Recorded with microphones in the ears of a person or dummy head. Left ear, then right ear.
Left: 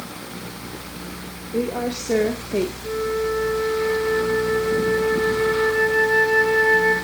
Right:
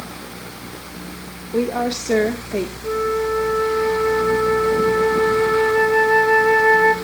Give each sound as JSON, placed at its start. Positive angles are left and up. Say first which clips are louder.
{"t": 1.5, "sound": "a woman speaking", "louder": "right 4 dB", "side_deg": -45, "distance_m": 2.0}
{"t": 2.8, "sound": "a flute", "louder": "right 3 dB", "side_deg": -30, "distance_m": 1.7}